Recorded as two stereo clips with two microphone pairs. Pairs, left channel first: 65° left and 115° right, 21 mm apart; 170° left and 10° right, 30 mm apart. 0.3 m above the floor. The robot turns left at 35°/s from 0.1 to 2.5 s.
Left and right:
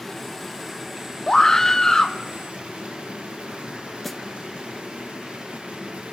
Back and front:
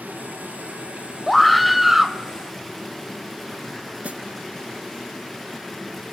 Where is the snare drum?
20° right, 0.7 m.